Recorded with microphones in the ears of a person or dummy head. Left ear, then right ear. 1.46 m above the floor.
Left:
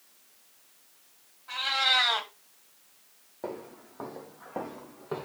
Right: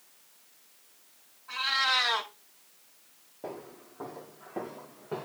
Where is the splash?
I don't hear a splash.